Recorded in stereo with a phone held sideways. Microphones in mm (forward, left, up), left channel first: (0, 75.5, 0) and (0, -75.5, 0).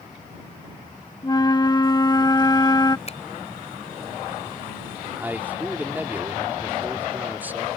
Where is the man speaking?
10° right (ahead or behind).